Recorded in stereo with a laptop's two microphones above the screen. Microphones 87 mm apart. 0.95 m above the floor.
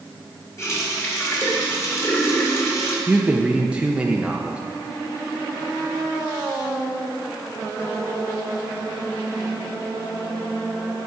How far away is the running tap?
About 2.5 m.